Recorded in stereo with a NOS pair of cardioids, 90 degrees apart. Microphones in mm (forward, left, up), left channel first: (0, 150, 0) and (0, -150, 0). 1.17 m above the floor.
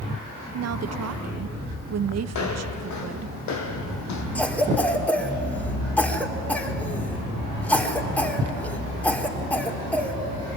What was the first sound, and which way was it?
A woman speaking, 55° right.